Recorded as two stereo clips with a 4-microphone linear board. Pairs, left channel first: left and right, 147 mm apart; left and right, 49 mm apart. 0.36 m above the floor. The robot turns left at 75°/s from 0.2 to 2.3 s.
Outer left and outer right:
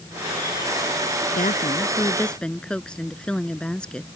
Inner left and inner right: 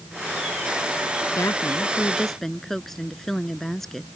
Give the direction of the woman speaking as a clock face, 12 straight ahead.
9 o'clock.